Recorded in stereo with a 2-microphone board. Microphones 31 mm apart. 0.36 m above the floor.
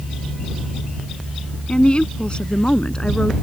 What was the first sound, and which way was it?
A woman speaking, 40° left (ahead or behind).